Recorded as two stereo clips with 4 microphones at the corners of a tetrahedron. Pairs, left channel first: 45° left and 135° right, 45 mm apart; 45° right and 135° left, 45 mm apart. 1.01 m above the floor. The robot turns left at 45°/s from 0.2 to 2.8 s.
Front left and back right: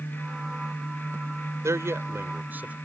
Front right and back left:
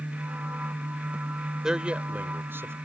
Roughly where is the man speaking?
Behind right.